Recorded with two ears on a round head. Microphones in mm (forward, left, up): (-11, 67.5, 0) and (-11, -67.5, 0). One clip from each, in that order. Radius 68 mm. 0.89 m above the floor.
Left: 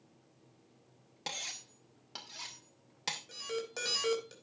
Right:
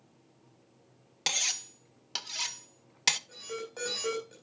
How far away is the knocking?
I don't hear knocking.